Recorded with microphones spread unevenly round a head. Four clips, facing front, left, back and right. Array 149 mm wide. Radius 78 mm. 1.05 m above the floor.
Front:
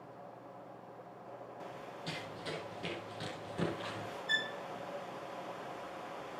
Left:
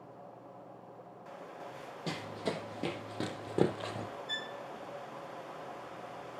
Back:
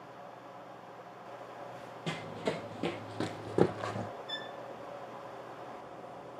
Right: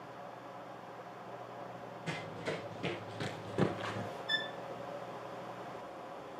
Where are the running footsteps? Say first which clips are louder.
Left 3 dB, back 8 dB; 130° left, 2 m; by 4.1 s 160° left, 2.5 m.